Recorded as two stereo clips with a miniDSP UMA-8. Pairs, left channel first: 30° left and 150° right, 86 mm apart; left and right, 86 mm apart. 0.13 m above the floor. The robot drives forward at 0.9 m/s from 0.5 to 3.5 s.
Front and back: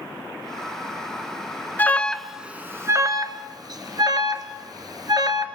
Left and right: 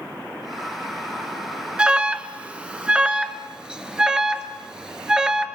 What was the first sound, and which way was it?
An alarm, 20° right.